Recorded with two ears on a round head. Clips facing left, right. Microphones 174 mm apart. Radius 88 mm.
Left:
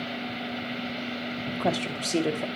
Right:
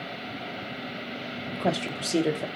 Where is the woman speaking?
5° right (ahead or behind), 1.0 m.